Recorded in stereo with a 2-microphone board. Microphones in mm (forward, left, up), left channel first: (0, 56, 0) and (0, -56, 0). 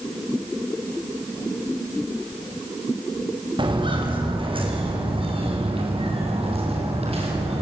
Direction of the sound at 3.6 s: 50° right (ahead or behind).